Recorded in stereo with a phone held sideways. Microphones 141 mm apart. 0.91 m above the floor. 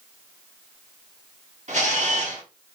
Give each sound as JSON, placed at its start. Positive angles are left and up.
{"t": 1.7, "sound": "a camera shutter", "side_deg": -55, "distance_m": 1.5}